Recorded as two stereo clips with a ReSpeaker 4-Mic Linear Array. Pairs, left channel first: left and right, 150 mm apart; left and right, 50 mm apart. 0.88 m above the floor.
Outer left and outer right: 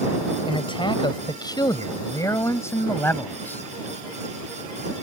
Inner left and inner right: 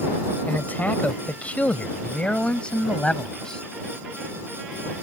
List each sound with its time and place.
0.5 s a man speaking: 35° left (ahead or behind); by 3.6 s 10° left (ahead or behind)